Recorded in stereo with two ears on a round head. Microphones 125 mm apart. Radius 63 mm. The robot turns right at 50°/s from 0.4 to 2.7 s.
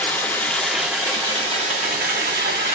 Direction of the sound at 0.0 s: 170° left.